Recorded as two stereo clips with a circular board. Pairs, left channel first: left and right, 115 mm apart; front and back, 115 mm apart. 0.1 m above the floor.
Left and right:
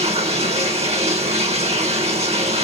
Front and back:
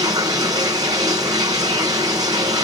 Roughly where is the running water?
Behind right.